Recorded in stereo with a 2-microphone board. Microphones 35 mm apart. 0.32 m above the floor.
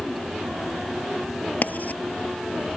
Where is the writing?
55° left (ahead or behind).